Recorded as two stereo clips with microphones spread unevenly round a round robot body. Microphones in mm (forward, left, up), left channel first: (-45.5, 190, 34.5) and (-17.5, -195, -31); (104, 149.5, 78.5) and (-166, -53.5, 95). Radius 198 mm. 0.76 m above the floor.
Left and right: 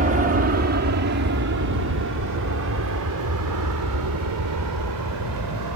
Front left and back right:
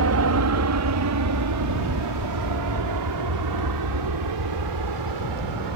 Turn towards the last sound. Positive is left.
turn(degrees=-125)